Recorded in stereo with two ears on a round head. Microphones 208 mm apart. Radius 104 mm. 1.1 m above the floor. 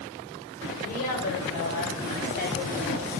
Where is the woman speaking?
40° left (ahead or behind), 5 m; by 3.0 s 35° left (ahead or behind), 6.5 m.